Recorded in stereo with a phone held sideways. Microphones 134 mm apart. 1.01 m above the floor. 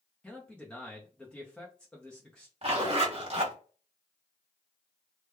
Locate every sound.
0.2 s a man speaking: 5° left (ahead or behind), 0.8 m
2.6 s a zipper: 50° right (ahead or behind), 1.3 m